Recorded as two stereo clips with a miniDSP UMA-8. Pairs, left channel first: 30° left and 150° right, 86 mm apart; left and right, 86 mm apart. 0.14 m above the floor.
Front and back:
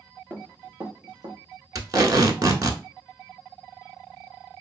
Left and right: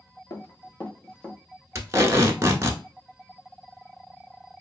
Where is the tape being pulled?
135° right, 0.6 m.